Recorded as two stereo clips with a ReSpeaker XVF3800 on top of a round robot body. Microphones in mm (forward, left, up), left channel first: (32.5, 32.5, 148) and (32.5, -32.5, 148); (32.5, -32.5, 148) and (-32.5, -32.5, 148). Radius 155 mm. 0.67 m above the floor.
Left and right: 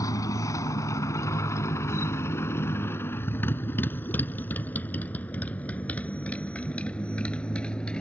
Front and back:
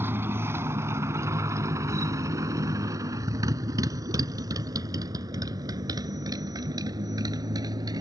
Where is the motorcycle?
125° left; by 8.0 s 165° left.